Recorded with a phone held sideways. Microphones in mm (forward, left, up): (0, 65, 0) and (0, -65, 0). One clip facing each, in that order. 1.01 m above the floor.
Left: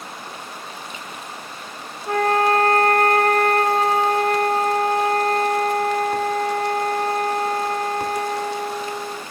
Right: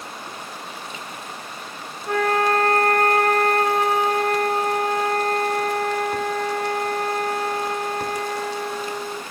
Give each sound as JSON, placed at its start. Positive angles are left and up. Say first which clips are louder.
{"t": 2.1, "sound": "a flute", "louder": "left 2 dB", "side_deg": 25, "distance_m": 0.7}